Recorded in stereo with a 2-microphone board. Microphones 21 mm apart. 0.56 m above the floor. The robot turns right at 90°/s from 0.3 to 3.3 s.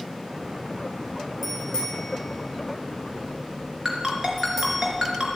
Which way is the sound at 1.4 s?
15° left (ahead or behind).